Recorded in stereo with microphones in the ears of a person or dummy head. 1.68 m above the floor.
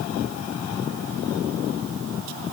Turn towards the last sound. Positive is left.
No sound to turn to.